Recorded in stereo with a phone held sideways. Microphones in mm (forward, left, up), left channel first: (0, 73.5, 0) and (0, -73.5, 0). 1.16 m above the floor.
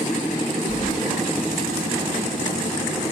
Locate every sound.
0.7 s keys jangling: 55° left (ahead or behind), 0.6 m